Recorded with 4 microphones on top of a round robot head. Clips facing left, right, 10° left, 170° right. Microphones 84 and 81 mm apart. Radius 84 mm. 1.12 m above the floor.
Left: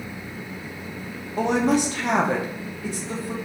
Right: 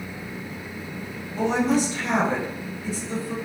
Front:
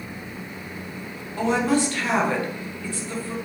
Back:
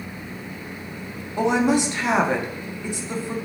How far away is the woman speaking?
About 0.6 m.